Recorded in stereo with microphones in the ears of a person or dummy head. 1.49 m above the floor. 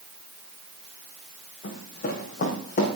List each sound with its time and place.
1.6 s running footsteps: 50° left (ahead or behind), 4.5 m